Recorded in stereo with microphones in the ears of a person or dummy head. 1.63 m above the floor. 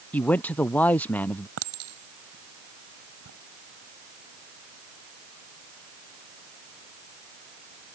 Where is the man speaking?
5° left (ahead or behind).